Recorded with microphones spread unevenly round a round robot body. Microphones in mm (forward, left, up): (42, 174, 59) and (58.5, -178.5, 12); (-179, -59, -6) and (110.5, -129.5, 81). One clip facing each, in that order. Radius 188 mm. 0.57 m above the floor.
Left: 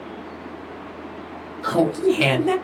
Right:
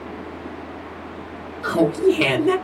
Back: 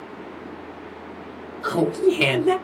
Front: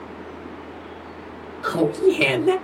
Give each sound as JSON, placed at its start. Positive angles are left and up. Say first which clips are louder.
{"t": 1.6, "sound": "laughter", "louder": "right 2 dB, front 1 dB", "azimuth_deg": -175, "distance_m": 0.7}